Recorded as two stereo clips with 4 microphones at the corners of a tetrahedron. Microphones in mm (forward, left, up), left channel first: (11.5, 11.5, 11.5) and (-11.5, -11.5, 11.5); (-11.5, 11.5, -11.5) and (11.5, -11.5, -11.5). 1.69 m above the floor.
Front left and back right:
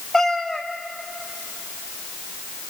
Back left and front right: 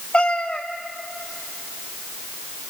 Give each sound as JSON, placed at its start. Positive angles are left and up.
{"t": 0.1, "sound": "a cat meowing", "azimuth_deg": 110, "distance_m": 1.4}